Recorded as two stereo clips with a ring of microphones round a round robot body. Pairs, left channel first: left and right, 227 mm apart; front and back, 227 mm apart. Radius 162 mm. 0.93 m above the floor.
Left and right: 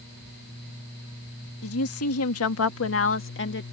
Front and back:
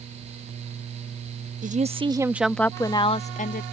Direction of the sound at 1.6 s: 125° left.